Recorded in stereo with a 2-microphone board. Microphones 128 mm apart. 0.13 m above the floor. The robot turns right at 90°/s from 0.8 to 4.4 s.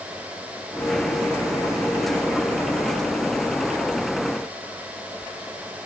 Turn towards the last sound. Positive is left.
No sound to turn to.